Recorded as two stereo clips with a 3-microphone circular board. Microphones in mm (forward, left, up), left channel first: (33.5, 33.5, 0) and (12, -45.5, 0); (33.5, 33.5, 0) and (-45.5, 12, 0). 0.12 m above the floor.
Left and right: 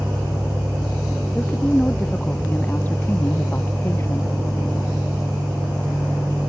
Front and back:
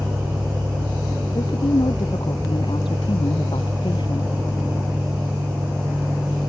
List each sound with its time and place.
1.4 s a woman speaking: 5° right; by 4.3 s 15° left